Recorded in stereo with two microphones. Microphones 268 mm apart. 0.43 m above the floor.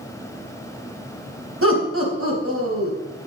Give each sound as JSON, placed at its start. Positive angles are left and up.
{"t": 1.6, "sound": "laughter", "side_deg": -60, "distance_m": 3.5}